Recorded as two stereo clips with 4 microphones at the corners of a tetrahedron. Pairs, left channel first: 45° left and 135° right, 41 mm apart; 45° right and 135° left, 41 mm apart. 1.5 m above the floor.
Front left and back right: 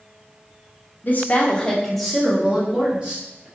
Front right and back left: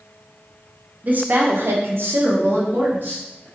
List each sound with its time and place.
1.0 s a woman speaking: 90° left, 0.6 m; by 3.5 s 170° left, 1.2 m